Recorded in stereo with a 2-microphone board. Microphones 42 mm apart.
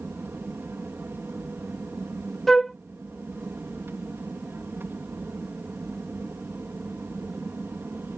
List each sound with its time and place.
0.0 s an aircraft: 60° right (ahead or behind)
2.5 s a flute: 10° left (ahead or behind)